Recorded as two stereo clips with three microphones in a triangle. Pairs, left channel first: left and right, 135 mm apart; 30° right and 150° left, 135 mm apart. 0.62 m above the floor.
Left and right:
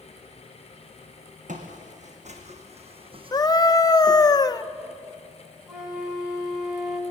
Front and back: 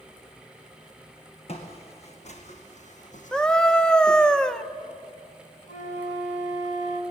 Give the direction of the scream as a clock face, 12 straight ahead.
10 o'clock.